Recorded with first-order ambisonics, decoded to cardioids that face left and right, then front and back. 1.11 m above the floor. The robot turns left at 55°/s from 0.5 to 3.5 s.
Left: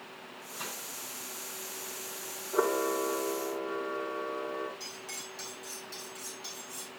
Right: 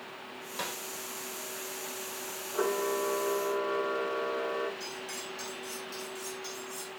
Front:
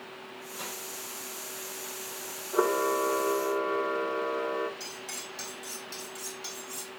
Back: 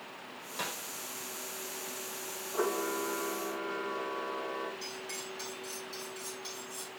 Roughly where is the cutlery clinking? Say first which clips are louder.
Right 3 dB, front 1 dB; ahead.